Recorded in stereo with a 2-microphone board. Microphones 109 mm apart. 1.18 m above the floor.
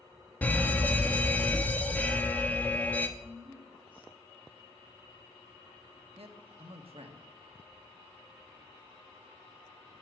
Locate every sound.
0.4 s a fire alarm: 15° left (ahead or behind), 1.0 m
3.2 s a woman speaking: 50° right (ahead or behind), 3 m
6.2 s a man speaking: 60° right (ahead or behind), 1.3 m